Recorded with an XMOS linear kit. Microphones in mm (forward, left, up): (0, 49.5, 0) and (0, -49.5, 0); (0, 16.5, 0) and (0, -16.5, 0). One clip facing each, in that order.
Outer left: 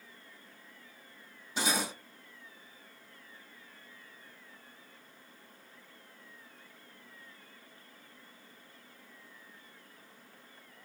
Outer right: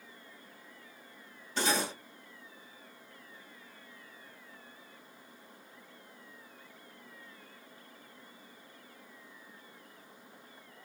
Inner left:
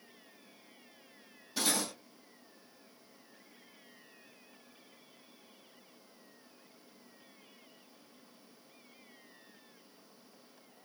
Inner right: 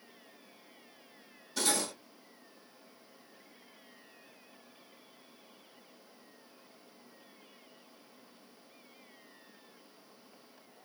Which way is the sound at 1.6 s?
10° left (ahead or behind).